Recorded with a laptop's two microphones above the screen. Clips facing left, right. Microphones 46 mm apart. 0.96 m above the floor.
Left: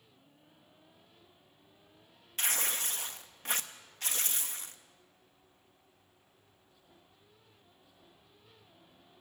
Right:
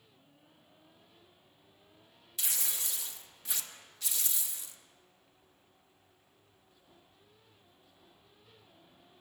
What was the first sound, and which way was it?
Tearing paper, 50° left (ahead or behind).